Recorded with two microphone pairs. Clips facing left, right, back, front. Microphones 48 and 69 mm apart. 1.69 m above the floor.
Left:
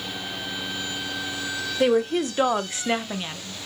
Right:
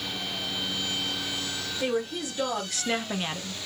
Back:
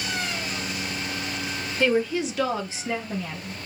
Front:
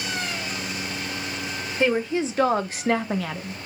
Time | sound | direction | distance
1.8 | a woman speaking | 70° left | 1.1 m